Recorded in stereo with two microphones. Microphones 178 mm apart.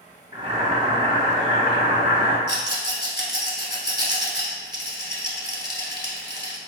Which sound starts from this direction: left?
A rattle, at 2.5 s.